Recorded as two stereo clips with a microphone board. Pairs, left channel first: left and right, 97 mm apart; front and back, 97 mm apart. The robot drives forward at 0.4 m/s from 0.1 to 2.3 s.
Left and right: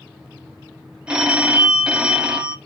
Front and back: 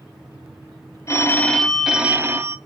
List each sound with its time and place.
1.1 s a phone ringing: 20° right, 0.6 m; by 2.6 s 155° right, 0.6 m